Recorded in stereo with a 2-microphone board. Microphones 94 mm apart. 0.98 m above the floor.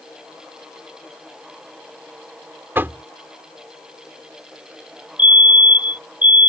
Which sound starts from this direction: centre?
A fire alarm, at 5.2 s.